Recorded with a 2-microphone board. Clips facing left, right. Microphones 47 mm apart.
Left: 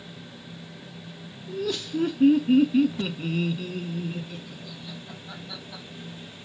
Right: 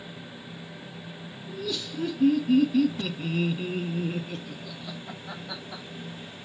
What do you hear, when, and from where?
1.5 s laughter: 50° left (ahead or behind), 1.3 m; by 5.8 s 75° right (ahead or behind), 1.3 m